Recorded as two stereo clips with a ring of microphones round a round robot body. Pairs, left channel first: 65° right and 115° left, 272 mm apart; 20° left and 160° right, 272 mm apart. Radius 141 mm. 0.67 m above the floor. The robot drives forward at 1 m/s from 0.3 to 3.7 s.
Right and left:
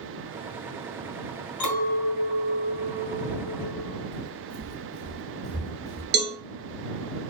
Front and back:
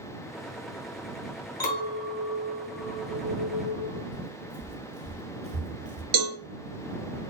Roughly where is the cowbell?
Behind.